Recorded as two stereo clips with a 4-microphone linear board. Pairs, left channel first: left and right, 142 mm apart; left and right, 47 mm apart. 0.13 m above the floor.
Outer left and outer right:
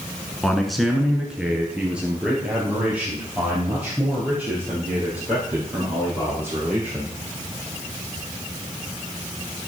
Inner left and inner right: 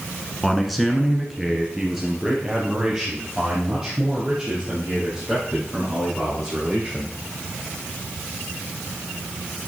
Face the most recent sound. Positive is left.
turn(degrees=-10)  # may be behind; listen again after turning